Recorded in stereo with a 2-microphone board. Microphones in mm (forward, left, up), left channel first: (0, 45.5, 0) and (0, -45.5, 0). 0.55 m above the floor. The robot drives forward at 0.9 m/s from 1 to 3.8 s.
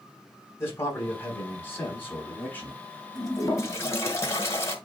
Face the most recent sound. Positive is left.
turn(degrees=30)  # may be behind; listen again after turning